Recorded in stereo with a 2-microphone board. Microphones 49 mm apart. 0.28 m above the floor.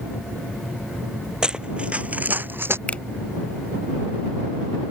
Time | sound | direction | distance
1.4 | running footsteps | 15° right (ahead or behind) | ?
2.9 | a finger snap | 25° left (ahead or behind) | ?